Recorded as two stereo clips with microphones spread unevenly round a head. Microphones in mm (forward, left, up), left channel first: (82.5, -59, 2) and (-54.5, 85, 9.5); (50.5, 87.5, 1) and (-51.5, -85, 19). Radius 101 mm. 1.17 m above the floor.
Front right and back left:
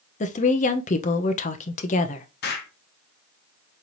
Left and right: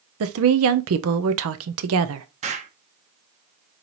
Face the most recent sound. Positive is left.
turn(degrees=-75)